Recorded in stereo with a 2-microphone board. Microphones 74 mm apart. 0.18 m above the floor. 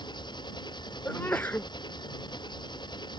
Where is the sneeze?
25° left (ahead or behind).